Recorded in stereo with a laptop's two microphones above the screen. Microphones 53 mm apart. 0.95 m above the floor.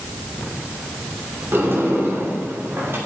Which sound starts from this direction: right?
A sliding door, at 1.5 s.